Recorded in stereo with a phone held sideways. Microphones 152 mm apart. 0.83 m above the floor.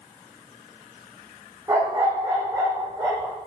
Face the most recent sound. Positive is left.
turn(degrees=-15)  # may be behind; listen again after turning